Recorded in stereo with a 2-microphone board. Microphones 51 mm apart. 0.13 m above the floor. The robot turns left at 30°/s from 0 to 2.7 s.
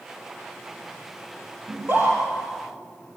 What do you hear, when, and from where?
1.7 s a scream: 40° right (ahead or behind), 4.5 m; by 2.2 s 50° right (ahead or behind), 4.5 m